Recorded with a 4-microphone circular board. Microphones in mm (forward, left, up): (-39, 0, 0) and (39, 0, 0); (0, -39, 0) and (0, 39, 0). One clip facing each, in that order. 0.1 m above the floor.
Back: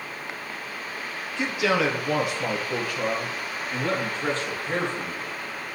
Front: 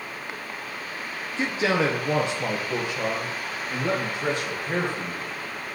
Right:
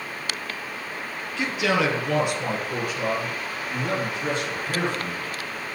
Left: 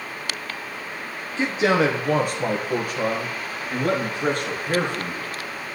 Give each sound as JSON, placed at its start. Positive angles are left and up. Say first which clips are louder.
{"t": 1.4, "sound": "a man speaking", "louder": "even, left 4 dB", "azimuth_deg": 45, "distance_m": 2.0}